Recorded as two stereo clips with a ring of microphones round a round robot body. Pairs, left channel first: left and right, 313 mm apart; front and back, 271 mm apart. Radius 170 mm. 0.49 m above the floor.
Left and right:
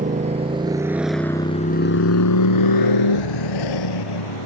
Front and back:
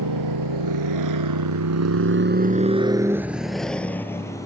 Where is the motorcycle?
155° right; by 4.5 s 80° left.